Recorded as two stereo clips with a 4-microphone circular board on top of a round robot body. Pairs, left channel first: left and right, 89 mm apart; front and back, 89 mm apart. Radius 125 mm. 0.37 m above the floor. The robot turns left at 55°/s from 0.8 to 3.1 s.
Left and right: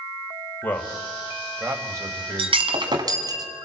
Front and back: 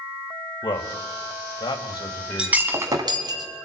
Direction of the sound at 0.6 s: 20° left.